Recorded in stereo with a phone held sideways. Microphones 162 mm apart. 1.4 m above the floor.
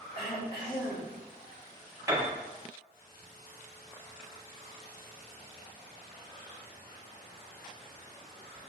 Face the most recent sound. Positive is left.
turn(degrees=-20)  # may be behind; listen again after turning